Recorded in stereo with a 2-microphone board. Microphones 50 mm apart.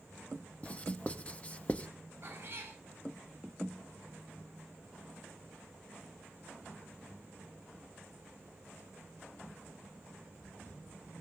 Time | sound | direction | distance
0.6 | writing | 25° left (ahead or behind) | 0.8 m
2.2 | a cat meowing | 50° right (ahead or behind) | 6 m